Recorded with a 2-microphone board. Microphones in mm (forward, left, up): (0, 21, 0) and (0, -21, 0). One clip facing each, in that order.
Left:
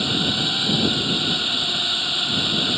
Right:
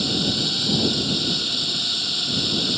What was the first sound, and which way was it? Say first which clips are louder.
A drone: left 2 dB; 30° left (ahead or behind).